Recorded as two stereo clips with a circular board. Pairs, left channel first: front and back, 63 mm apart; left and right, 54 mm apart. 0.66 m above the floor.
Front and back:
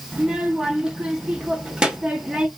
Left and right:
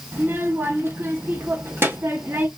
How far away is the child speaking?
About 0.9 m.